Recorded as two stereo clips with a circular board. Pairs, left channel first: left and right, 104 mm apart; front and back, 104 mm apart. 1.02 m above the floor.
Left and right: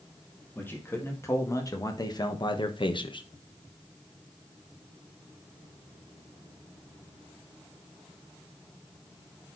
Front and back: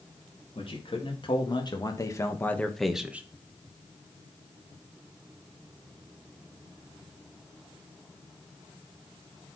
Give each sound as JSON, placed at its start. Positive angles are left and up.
{"t": 0.6, "sound": "a man speaking", "azimuth_deg": 20, "distance_m": 2.0}